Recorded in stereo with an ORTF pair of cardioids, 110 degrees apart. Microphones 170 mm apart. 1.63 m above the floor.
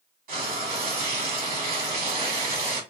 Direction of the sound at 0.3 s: 65° right.